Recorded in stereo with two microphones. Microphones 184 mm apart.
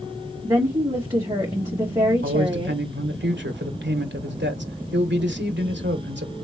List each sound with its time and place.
0.4 s a woman speaking: 20° right (ahead or behind), 2 m
2.2 s a man speaking: 80° right, 1.4 m